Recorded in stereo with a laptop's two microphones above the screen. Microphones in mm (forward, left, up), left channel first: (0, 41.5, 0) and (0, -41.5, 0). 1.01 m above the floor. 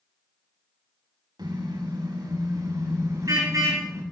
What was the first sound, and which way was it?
A car horn, 65° right (ahead or behind).